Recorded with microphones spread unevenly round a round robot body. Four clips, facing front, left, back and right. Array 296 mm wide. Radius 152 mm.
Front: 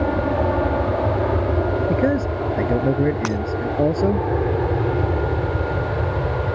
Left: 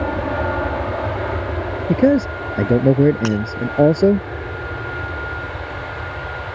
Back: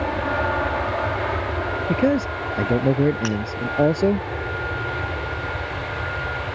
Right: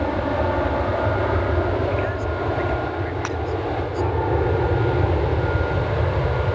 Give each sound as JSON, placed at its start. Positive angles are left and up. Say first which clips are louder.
{"t": 0.0, "sound": "an aircraft", "louder": "left 1 dB, front 3 dB", "azimuth_deg": 5}
{"t": 1.9, "sound": "a man speaking", "louder": "left 9 dB, even", "azimuth_deg": 90}
{"t": 3.2, "sound": "breaking glass", "louder": "left 7 dB, front 1 dB", "azimuth_deg": 30}